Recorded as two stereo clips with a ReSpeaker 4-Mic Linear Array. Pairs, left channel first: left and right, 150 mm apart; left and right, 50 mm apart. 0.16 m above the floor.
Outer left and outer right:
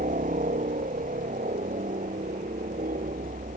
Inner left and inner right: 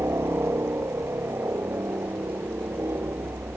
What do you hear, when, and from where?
0.0 s a helicopter: 65° right (ahead or behind)